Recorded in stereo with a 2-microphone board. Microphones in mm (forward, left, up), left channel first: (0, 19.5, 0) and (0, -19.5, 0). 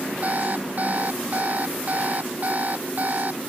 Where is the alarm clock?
40° right (ahead or behind).